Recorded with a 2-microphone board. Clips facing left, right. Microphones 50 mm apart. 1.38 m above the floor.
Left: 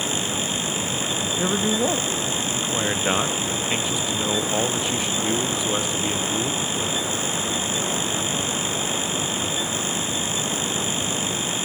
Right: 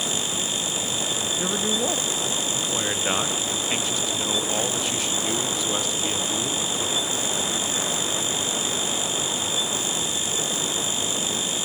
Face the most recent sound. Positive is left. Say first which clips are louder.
# left 4 dB
turn(degrees=15)  # may be behind; listen again after turning